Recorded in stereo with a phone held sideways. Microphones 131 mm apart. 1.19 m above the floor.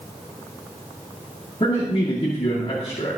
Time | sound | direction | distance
1.6 | a man speaking | 45° left (ahead or behind) | 2.5 m